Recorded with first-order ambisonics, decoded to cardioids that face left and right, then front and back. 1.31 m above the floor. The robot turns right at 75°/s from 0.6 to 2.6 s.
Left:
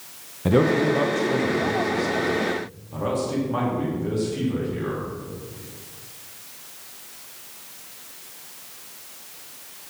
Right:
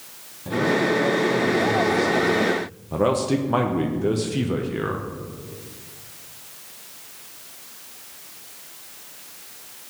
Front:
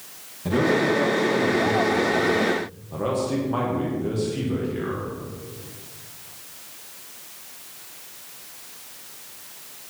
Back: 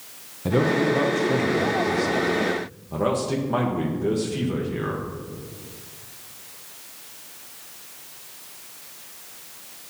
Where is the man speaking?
105° left, 0.9 m; by 5.0 s 105° right, 0.9 m.